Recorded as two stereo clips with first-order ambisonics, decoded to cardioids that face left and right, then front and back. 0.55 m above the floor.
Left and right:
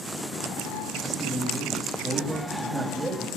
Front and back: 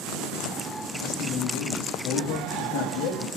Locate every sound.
1.0 s a man speaking: straight ahead, 3 m